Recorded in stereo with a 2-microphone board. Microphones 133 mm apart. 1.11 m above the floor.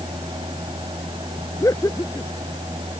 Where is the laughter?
20° left (ahead or behind).